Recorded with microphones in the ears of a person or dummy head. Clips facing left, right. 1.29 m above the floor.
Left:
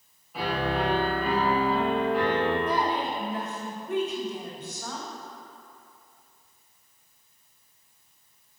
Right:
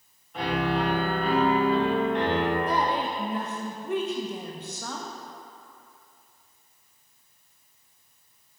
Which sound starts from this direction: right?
A woman speaking, at 2.7 s.